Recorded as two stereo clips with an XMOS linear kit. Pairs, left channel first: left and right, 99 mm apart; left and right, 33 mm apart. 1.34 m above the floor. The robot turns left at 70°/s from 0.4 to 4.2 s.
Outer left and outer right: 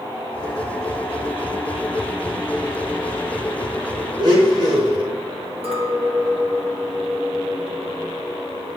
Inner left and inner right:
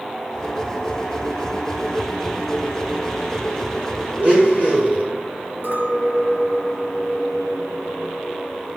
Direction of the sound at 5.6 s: 70° right (ahead or behind).